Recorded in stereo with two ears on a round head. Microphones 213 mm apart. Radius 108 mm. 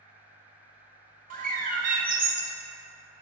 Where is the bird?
35° right (ahead or behind), 0.8 m.